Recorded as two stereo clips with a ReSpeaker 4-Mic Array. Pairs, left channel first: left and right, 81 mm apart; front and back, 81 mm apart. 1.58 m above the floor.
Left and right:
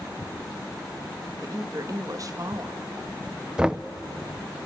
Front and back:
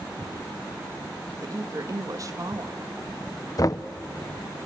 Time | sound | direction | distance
1.4 | a woman speaking | 135° right | 2 m
3.6 | knocking | 15° right | 0.6 m